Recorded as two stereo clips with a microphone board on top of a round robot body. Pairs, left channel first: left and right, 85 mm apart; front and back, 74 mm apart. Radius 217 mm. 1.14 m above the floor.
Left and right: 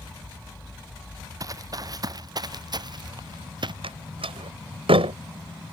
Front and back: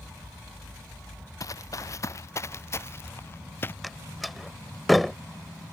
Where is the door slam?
90° right.